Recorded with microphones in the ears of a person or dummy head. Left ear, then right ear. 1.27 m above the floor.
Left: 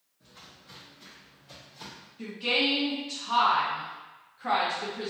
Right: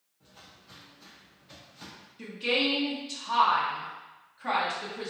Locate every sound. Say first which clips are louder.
0.2 s footsteps: left 2 dB; 10° left (ahead or behind), 1.3 m; by 2.1 s 50° left (ahead or behind), 3 m
2.2 s a woman speaking: left 1 dB; 10° right (ahead or behind), 0.7 m